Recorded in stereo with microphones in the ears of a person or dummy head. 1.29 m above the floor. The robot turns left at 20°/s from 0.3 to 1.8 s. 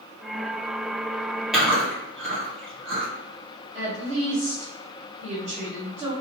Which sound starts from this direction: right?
A woman speaking, at 3.7 s.